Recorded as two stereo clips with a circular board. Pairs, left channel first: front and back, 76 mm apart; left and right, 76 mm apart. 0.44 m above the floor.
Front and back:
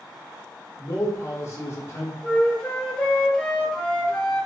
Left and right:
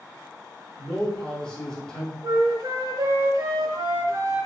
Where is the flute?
75° right, 0.6 m.